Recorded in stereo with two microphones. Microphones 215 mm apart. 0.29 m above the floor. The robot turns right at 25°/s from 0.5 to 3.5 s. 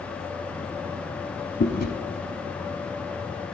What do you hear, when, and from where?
1.6 s chewing: 50° left (ahead or behind), 1.1 m; by 1.9 s 45° left (ahead or behind), 1.1 m